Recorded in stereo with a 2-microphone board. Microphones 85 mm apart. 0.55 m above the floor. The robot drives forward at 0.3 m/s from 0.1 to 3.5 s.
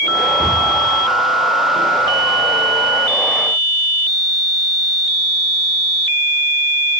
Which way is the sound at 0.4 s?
5° left (ahead or behind).